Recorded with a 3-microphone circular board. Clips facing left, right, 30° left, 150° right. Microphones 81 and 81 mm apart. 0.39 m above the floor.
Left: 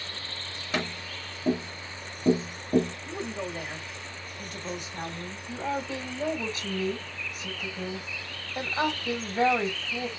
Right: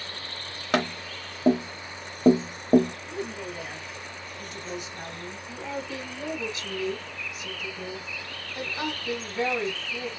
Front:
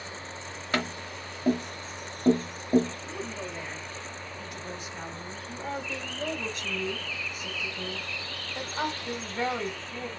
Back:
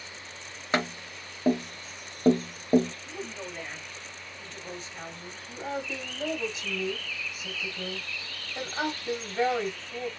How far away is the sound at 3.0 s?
About 1.6 m.